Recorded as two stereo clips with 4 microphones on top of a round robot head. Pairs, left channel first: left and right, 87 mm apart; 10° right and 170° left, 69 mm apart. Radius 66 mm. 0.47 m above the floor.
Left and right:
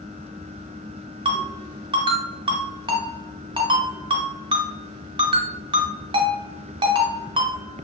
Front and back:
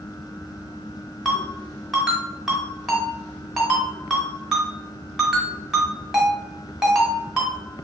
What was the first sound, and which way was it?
A ringtone, 105° right.